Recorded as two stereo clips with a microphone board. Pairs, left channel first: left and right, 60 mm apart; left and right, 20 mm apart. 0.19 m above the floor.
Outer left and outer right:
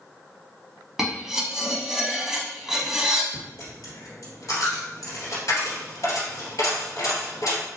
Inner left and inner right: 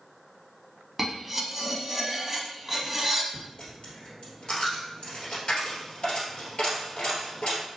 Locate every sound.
1.0 s cutlery clinking: 10° right (ahead or behind), 0.6 m
3.3 s a dropped coin: 65° left (ahead or behind), 1.6 m